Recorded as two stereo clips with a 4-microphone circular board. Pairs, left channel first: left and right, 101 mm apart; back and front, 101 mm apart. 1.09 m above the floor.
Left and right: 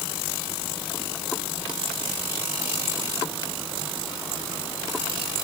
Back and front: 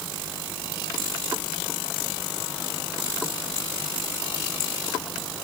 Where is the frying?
No frying in this recording.